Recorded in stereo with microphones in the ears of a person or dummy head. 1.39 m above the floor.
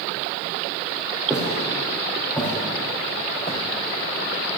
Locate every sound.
1.3 s footsteps: 5° right (ahead or behind), 3.5 m; by 3.6 s 25° left (ahead or behind), 4.5 m